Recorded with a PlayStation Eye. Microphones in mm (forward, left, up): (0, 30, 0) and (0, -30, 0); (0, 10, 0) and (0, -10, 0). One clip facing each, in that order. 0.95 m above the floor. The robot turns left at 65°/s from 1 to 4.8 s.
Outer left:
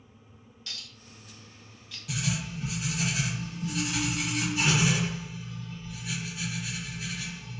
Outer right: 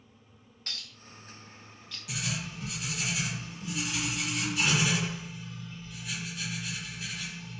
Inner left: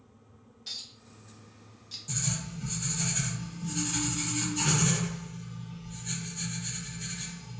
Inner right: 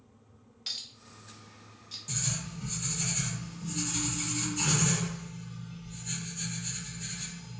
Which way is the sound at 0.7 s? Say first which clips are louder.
Outer right 1 dB, inner right 2 dB; 50° right (ahead or behind).